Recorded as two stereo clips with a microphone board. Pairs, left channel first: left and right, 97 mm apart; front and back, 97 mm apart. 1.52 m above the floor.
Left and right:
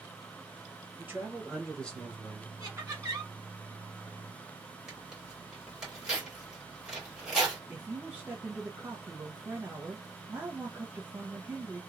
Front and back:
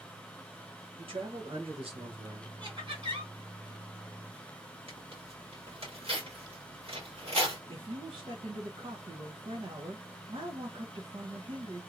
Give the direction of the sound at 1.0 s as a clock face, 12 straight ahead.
5 o'clock.